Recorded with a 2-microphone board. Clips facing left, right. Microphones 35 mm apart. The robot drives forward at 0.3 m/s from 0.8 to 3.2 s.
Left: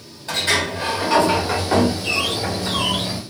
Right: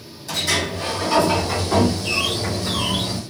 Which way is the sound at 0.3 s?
40° left (ahead or behind).